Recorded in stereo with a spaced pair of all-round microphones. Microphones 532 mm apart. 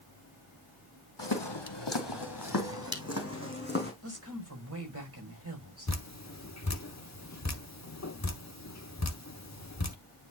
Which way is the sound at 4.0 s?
25° right (ahead or behind).